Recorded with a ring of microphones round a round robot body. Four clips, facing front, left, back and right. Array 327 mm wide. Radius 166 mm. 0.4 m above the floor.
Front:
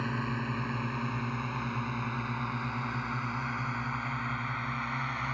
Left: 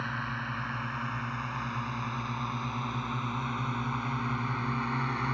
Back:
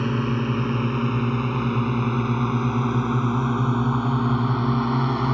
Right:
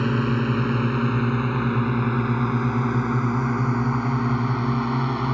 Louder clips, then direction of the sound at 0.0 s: Right 13 dB, back 10 dB; 125° right.